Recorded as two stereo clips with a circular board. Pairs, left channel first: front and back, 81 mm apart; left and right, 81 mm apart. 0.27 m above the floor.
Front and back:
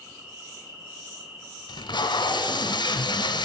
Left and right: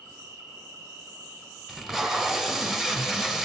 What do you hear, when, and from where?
0.0 s an insect: 130° right, 2.5 m
1.7 s tape being pulled: 5° right, 0.6 m